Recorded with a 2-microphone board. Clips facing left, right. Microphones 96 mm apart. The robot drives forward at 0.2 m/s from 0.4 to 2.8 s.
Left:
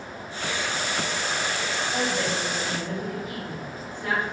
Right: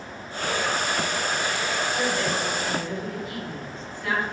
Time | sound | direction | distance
1.9 | a woman speaking | 25° left (ahead or behind) | 2.0 m